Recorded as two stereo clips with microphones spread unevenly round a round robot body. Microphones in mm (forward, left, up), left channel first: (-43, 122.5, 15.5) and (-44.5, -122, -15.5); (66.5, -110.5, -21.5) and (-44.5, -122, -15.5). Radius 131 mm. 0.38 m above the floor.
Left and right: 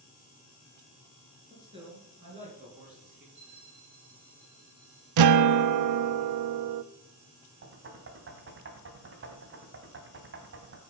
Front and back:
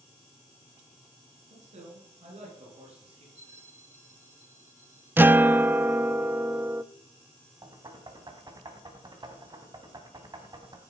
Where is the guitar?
100° right, 0.5 m.